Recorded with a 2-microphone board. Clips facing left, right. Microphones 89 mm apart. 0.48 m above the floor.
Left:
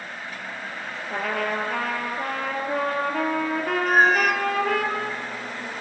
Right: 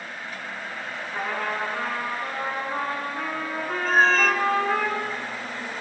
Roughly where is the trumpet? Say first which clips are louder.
Left 3 dB; left.